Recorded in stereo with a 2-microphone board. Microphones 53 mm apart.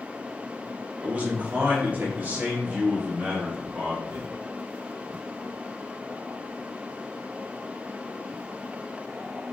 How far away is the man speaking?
About 1.4 m.